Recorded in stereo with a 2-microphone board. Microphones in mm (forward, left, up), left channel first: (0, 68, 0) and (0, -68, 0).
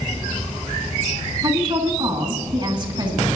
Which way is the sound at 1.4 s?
35° right (ahead or behind).